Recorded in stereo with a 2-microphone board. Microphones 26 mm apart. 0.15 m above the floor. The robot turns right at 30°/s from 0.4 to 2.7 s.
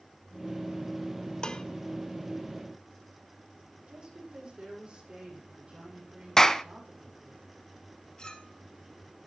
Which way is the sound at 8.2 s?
30° left (ahead or behind).